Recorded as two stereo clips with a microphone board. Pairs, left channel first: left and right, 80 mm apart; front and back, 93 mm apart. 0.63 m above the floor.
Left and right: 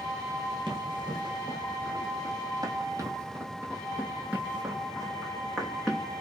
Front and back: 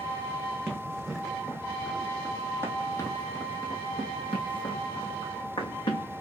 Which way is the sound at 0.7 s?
100° right.